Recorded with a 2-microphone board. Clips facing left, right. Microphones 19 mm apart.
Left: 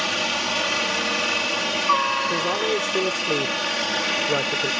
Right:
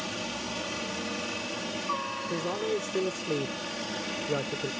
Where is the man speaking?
30° left (ahead or behind).